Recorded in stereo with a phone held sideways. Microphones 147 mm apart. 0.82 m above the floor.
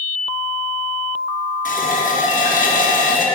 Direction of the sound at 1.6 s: 65° left (ahead or behind).